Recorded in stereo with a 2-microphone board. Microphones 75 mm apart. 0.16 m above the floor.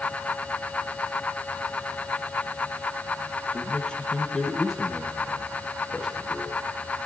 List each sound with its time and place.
3.5 s a man speaking: 15° left (ahead or behind), 3.5 m; by 6.6 s 10° right (ahead or behind), 4.5 m